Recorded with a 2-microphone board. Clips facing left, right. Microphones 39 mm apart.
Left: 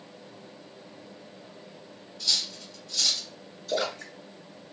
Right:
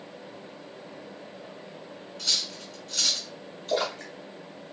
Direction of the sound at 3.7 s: 45° right (ahead or behind).